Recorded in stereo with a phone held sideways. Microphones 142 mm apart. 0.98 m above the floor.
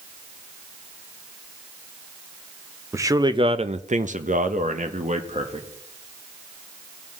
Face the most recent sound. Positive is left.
turn(degrees=-50)  # may be behind; listen again after turning